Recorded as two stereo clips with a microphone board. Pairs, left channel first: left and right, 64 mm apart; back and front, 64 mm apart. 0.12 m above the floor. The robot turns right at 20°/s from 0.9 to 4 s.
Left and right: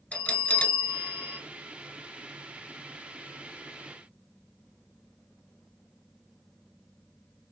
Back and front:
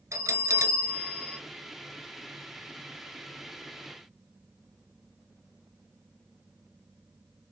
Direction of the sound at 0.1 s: 30° left.